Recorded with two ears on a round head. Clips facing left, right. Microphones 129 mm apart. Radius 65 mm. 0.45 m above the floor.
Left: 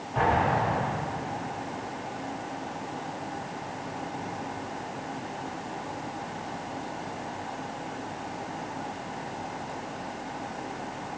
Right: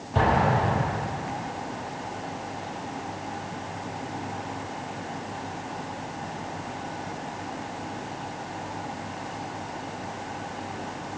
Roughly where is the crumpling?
No crumpling in this recording.